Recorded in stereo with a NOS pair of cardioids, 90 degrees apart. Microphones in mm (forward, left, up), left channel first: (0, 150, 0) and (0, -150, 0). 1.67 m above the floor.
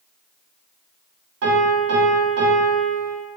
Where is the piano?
55° right, 1.2 m.